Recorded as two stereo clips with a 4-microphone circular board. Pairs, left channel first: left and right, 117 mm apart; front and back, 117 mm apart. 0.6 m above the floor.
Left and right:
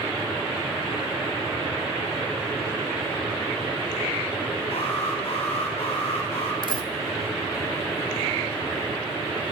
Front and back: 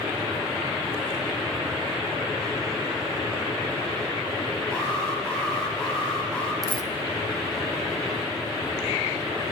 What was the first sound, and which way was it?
An alarm, 80° left.